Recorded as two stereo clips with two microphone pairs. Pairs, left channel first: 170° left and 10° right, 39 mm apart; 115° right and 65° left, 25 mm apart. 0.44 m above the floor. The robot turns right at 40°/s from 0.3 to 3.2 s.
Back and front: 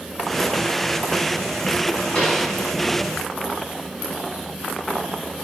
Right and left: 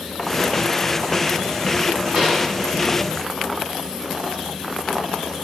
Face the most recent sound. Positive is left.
turn(degrees=155)